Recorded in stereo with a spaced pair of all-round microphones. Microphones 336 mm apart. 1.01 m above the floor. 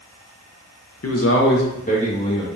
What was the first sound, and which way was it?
A man speaking, 50° left (ahead or behind).